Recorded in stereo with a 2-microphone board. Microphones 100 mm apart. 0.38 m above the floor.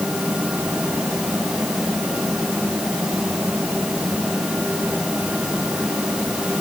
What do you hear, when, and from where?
Only background noise.